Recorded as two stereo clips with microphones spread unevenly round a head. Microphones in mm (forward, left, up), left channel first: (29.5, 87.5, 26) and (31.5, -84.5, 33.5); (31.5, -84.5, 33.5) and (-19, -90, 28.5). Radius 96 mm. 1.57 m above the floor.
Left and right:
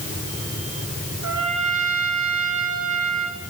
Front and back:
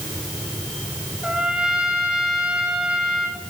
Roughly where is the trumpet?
Right.